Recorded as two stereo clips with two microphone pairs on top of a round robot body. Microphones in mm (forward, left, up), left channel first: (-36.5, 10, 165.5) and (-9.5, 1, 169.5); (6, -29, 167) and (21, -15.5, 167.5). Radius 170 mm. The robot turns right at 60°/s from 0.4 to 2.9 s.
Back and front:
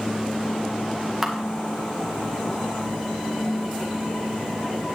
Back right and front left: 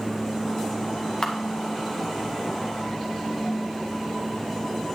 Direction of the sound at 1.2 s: 105° right.